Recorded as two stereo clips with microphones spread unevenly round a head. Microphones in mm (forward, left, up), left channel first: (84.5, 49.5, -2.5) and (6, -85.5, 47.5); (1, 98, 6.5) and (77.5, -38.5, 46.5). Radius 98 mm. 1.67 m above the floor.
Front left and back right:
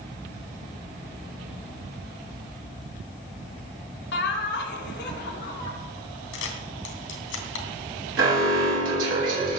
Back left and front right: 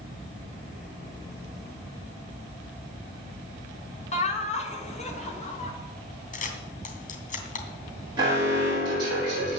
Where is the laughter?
75° left, 3.5 m.